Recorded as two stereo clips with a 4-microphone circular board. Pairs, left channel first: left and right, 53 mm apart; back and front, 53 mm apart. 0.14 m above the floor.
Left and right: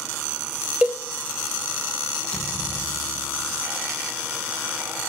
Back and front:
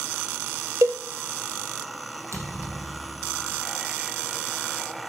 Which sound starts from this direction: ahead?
A thud, at 2.3 s.